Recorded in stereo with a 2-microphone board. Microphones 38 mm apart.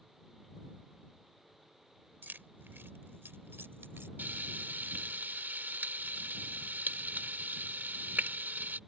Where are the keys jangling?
55° right (ahead or behind); by 4.1 s 75° right (ahead or behind).